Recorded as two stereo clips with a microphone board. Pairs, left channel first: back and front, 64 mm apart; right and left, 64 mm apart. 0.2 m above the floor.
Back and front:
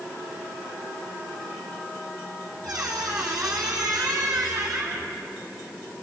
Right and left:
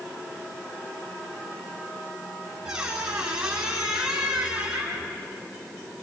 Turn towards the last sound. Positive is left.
turn(degrees=10)